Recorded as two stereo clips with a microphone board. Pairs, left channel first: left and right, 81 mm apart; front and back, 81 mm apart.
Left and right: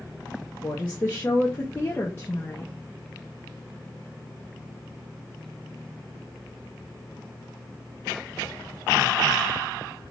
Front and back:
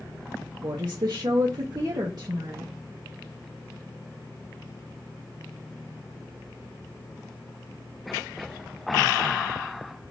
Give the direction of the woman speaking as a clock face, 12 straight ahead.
7 o'clock.